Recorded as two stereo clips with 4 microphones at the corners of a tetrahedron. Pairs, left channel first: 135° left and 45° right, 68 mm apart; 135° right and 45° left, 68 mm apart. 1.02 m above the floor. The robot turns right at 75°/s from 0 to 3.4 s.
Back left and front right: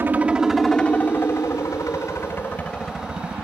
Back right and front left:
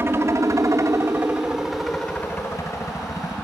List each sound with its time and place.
0.0 s a helicopter: straight ahead; by 3.4 s 105° right